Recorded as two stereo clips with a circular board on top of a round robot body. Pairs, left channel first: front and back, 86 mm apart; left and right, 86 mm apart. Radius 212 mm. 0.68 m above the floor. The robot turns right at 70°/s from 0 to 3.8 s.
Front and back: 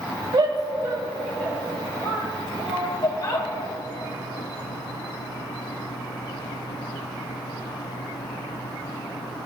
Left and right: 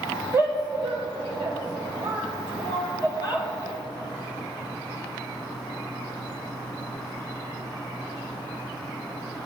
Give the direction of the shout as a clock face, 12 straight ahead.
5 o'clock.